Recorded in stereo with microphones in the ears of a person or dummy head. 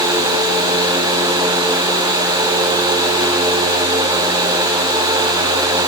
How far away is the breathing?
No breathing in this recording.